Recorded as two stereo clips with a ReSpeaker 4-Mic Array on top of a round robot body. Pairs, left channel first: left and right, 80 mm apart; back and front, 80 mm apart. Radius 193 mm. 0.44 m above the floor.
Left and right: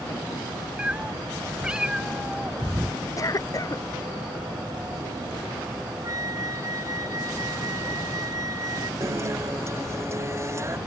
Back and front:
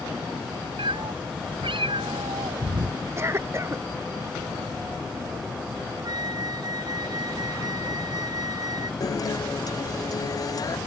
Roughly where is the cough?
Ahead left.